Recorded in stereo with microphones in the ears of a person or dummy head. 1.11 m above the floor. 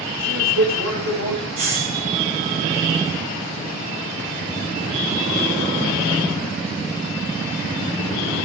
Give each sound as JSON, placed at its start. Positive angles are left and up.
{"t": 0.2, "sound": "a man speaking", "side_deg": -65, "distance_m": 4.5}
{"t": 1.6, "sound": "a hiss", "side_deg": -50, "distance_m": 8.5}